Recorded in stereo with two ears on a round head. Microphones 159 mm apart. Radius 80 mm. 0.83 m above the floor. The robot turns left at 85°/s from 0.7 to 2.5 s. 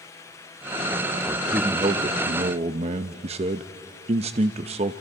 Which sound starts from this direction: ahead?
A man speaking, at 1.2 s.